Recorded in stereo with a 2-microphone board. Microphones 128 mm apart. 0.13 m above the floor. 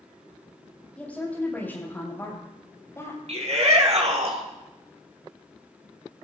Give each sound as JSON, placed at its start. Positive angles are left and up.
{"t": 1.0, "sound": "a woman speaking", "side_deg": 10, "distance_m": 6.0}
{"t": 3.3, "sound": "a shout", "side_deg": -55, "distance_m": 3.0}